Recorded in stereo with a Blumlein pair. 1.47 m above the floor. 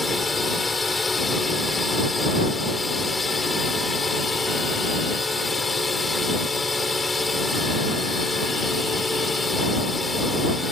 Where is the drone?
10° left.